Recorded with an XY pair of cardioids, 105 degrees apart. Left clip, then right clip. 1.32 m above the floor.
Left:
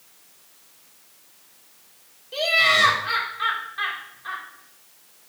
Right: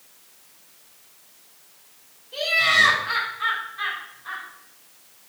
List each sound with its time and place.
2.3 s laughter: 65° left, 1.7 m